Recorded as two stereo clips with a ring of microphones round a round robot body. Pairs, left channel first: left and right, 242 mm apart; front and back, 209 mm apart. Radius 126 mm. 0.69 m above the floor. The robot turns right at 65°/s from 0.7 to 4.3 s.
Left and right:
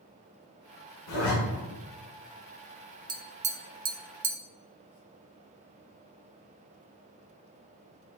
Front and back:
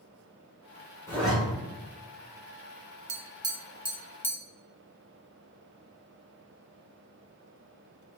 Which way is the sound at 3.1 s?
150° right.